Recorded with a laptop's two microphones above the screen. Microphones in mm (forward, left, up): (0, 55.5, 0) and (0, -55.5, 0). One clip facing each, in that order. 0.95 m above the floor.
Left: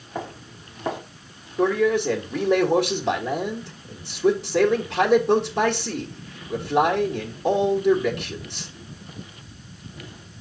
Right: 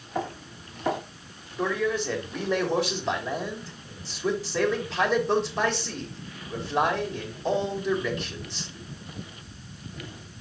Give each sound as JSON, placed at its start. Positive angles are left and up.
{"t": 0.1, "sound": "footsteps", "side_deg": 20, "distance_m": 3.0}
{"t": 1.6, "sound": "a man speaking", "side_deg": 65, "distance_m": 1.9}